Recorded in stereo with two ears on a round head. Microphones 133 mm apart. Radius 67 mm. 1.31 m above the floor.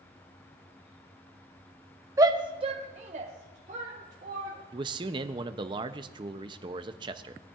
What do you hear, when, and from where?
2.2 s a shout: 20° right (ahead or behind), 0.5 m; by 4.6 s 55° right (ahead or behind), 1.5 m
4.7 s a man speaking: 30° right (ahead or behind), 0.6 m